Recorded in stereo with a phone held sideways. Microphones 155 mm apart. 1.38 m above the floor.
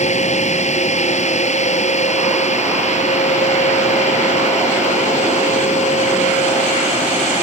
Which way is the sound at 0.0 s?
50° left (ahead or behind).